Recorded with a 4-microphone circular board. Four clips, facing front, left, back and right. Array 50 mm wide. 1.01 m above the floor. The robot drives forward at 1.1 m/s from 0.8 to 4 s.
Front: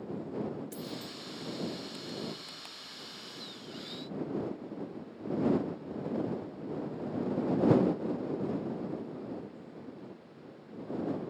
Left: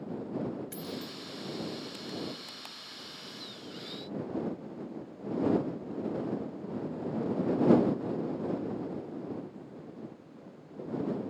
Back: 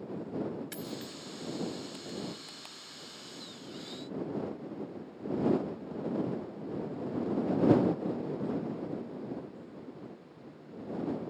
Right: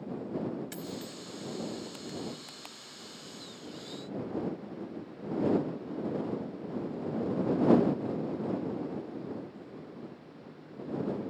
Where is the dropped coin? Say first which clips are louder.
Even, even; 160° right; by 1.2 s 165° right.